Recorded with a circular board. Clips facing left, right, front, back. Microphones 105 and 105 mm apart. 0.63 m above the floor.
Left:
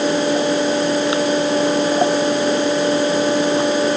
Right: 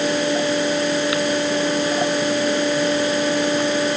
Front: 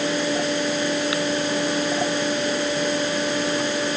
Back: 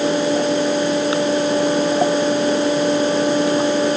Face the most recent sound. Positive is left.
No sound to turn to.